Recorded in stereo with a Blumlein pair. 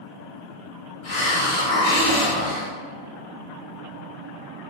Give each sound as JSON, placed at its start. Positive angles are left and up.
{"t": 1.0, "sound": "a hiss", "azimuth_deg": 40, "distance_m": 0.9}